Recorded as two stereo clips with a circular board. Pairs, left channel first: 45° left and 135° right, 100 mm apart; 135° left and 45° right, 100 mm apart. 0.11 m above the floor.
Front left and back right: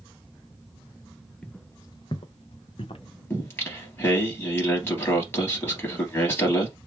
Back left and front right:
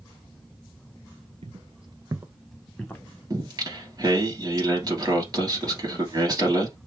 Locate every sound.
1.4 s footsteps: 40° right, 0.7 m; by 3.0 s 60° left, 1.0 m
3.3 s singing: 15° right, 2.5 m